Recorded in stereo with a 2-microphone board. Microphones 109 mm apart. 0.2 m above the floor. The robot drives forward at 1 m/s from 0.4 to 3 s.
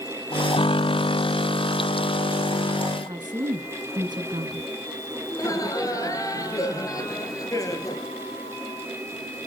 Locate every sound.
3.1 s a woman speaking: 40° right (ahead or behind), 2 m
5.3 s laughter: 30° left (ahead or behind), 4 m